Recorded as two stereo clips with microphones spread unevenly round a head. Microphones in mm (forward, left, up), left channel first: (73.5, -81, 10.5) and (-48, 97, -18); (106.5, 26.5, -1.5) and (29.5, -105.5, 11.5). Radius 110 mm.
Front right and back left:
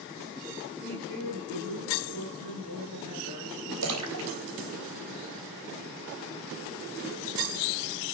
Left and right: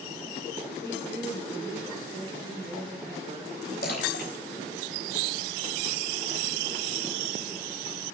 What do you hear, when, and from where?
0.8 s a woman speaking: 140° left, 9.5 m; by 3.7 s 165° left, 9.5 m
3.8 s a splash: 110° left, 3.5 m